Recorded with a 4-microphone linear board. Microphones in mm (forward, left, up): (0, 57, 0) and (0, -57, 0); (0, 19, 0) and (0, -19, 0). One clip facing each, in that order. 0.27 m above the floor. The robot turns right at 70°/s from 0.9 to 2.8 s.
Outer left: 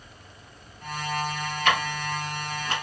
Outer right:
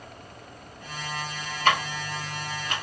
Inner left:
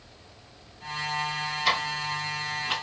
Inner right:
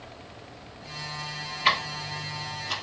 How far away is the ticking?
About 0.7 m.